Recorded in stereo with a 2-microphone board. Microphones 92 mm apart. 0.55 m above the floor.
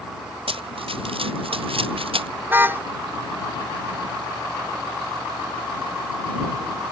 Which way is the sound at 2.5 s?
25° right (ahead or behind).